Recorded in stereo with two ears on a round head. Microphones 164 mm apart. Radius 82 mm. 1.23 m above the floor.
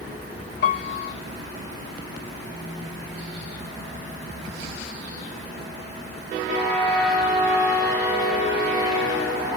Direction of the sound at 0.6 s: 55° left (ahead or behind).